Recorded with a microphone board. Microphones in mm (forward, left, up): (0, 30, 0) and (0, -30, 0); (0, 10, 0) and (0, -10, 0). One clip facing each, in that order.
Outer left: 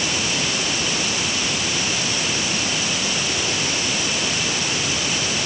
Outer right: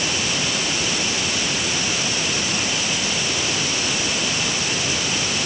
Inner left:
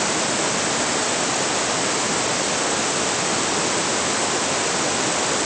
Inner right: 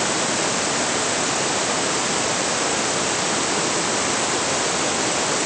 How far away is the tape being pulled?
I don't hear tape being pulled.